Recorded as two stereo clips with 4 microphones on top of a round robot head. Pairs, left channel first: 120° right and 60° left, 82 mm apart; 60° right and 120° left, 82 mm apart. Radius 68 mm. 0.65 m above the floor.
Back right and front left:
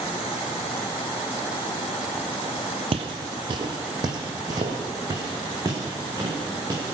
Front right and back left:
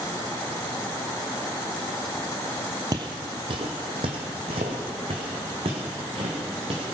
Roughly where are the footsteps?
Left.